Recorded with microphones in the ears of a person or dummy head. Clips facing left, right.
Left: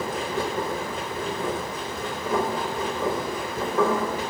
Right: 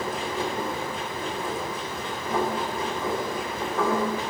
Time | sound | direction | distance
0.0 | a machine running | 55° left (ahead or behind) | 0.9 m